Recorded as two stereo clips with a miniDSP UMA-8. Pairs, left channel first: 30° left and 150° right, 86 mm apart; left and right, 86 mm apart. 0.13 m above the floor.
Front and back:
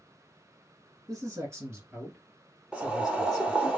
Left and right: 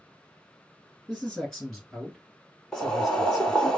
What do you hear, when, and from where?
1.1 s a man speaking: 175° left, 2.5 m; by 3.7 s 40° right, 1.6 m
2.7 s boiling: 155° left, 0.9 m